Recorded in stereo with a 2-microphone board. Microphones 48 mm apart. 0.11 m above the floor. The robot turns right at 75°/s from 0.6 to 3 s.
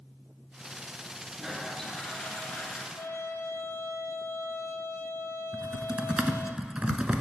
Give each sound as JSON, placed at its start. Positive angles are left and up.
{"t": 1.4, "sound": "a toilet flushing", "azimuth_deg": -15, "distance_m": 1.4}
{"t": 3.0, "sound": "a trumpet", "side_deg": 70, "distance_m": 0.6}
{"t": 5.5, "sound": "typing on a keyboard", "side_deg": -20, "distance_m": 0.7}